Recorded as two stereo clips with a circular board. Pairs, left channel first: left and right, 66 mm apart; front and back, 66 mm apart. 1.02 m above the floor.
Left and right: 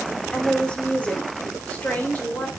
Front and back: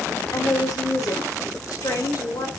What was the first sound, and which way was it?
A woman speaking, 20° left.